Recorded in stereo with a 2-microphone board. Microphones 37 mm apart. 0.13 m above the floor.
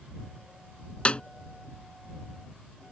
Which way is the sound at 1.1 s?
30° left (ahead or behind).